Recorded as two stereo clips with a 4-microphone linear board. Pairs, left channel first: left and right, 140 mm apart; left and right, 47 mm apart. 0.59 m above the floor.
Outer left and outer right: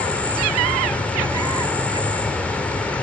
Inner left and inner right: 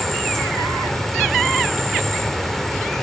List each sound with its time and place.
0.0 s an insect: 10° left (ahead or behind), 2 m